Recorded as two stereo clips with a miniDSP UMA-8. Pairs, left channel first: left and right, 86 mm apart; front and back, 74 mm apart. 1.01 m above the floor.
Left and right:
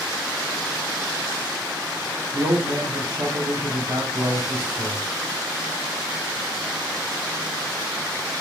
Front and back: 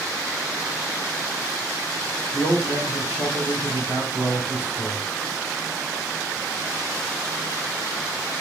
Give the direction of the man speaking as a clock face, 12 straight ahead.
2 o'clock.